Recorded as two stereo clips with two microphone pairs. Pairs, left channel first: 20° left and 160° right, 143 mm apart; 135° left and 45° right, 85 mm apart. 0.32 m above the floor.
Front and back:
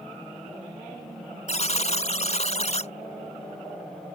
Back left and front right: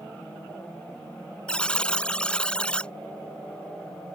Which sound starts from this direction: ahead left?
A buzzer, at 1.5 s.